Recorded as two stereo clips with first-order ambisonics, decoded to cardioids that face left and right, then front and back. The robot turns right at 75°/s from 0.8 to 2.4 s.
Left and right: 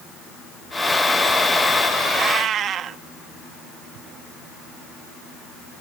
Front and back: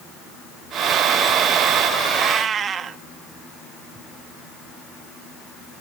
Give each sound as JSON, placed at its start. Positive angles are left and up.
{"t": 2.1, "sound": "a cat meowing", "azimuth_deg": -150, "distance_m": 1.0}